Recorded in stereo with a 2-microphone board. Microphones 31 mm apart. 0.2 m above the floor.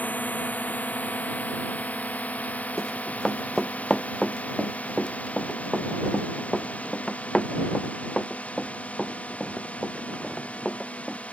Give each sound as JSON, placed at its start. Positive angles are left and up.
{"t": 0.0, "sound": "a drone", "side_deg": 60}
{"t": 2.8, "sound": "running footsteps", "side_deg": 10}